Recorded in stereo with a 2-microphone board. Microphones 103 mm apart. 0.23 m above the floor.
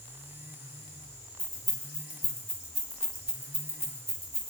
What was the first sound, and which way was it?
Keys jangling, 50° left (ahead or behind).